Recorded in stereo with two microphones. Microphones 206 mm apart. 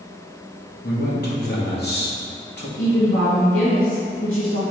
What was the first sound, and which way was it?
A man speaking, 55° left (ahead or behind).